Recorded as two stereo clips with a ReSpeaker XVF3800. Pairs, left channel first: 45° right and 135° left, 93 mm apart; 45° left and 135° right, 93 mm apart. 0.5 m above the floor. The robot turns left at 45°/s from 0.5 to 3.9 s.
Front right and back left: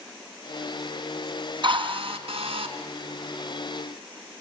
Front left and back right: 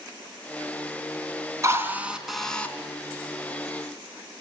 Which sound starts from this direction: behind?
A drill, at 1.6 s.